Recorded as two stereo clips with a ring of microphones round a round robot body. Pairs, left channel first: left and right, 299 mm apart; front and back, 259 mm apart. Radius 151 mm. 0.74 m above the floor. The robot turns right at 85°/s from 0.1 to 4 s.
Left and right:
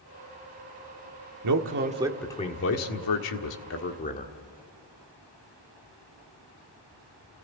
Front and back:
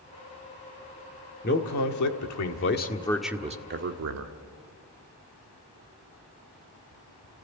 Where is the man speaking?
60° right, 1.6 m; by 4.3 s 155° left, 1.6 m.